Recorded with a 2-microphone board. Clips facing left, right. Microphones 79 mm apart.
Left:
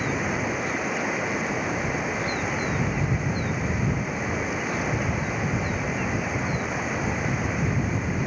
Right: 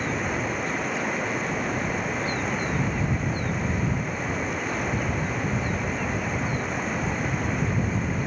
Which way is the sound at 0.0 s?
5° left (ahead or behind).